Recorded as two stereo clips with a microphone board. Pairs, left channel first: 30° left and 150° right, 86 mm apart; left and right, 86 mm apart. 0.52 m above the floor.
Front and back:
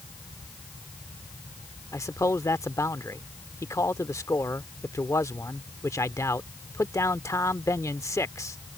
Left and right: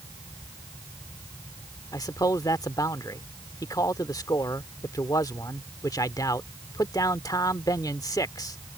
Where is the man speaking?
70° left.